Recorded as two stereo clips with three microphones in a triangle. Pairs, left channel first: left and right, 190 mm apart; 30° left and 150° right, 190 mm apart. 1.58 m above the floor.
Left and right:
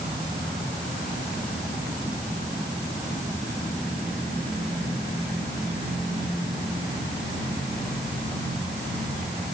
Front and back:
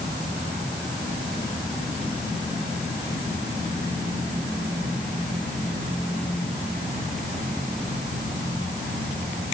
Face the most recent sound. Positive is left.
No sound to turn to.